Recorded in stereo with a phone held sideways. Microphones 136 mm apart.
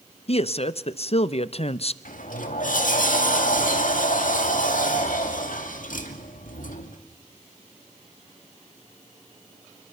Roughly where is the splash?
I don't hear a splash.